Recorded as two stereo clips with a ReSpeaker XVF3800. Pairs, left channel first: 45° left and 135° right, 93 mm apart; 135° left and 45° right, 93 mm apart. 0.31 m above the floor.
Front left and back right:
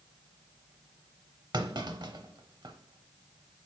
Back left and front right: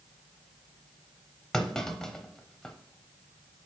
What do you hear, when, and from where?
1.5 s a clunk: 145° right, 0.6 m